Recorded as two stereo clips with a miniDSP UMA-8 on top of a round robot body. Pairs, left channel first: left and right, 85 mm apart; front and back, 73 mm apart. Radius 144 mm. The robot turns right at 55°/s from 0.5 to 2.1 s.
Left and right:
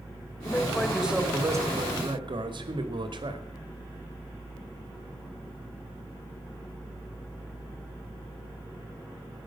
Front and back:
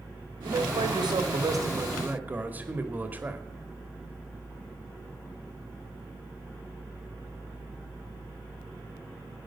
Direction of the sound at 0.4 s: 160° left.